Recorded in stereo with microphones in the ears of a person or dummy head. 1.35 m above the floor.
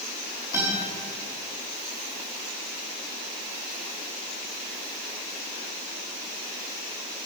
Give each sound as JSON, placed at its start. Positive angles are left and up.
{"t": 0.5, "sound": "a guitar", "side_deg": -15, "distance_m": 4.5}